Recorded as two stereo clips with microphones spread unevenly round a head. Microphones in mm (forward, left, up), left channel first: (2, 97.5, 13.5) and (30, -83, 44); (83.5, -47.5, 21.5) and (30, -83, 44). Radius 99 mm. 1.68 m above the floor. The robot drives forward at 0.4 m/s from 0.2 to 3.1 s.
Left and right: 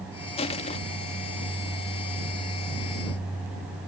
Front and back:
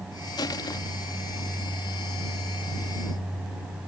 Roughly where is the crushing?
Ahead left.